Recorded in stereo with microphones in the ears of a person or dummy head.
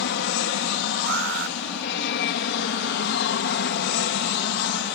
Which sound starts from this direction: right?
An alarm, at 1.1 s.